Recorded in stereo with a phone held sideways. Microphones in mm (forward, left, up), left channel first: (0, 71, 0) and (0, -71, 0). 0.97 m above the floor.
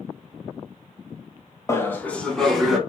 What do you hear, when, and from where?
1.7 s laughter: 20° left (ahead or behind), 0.7 m; by 2.8 s centre (ahead or behind), 1.2 m